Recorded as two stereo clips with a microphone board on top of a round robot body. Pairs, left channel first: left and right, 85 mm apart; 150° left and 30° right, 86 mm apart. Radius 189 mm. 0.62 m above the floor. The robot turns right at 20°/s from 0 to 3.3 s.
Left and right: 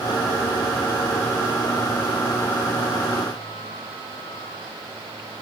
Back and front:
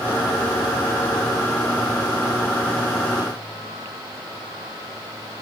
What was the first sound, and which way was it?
Only background noise.